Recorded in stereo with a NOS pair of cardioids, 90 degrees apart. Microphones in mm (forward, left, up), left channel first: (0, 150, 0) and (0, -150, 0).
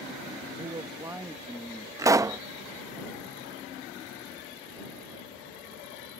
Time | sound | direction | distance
0.6 | a man speaking | 25° right | ?
2.0 | a pop | 10° right | ?